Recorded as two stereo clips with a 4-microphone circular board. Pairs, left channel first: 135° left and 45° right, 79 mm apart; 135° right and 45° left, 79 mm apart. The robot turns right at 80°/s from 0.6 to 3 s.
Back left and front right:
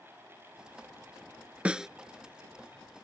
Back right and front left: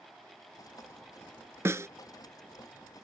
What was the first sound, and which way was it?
A snare drum, 20° left.